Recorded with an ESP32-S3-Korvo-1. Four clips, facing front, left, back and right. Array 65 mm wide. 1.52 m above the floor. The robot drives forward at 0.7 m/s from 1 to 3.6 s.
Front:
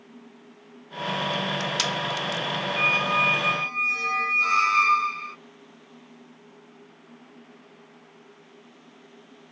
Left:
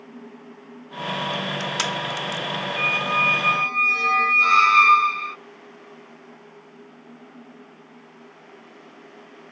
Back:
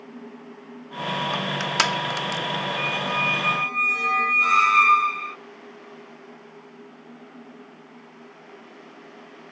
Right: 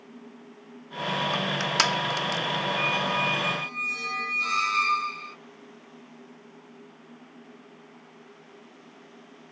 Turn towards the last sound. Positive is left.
turn(degrees=110)